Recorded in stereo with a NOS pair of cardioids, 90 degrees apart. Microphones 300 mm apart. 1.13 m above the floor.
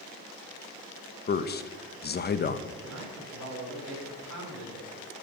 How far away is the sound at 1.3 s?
About 0.9 m.